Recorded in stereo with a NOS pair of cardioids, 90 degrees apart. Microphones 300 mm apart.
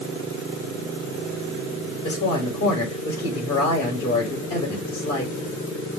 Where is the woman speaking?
60° left, 5.5 m.